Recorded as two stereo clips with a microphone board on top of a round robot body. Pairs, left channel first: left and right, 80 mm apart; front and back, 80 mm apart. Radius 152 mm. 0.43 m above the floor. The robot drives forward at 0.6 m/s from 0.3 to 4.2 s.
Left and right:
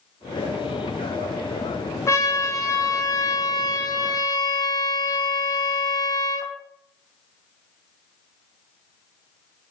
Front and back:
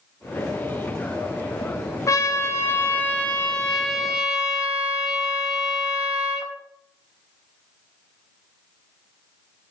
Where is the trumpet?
45° left, 1.8 m; by 6.5 s 100° left, 1.4 m.